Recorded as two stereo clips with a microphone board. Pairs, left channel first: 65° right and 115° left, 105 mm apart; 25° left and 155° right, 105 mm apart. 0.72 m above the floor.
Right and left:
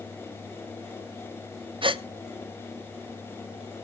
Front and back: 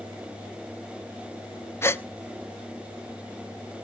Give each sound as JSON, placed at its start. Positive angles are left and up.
{"t": 1.8, "sound": "a gasp", "azimuth_deg": 85, "distance_m": 0.7}